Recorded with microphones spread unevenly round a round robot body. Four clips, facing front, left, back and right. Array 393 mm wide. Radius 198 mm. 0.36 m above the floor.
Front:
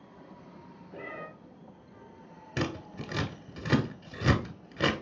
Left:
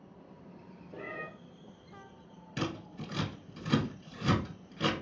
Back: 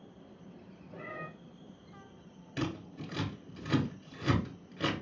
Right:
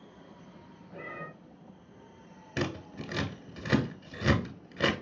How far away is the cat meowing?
About 2.0 m.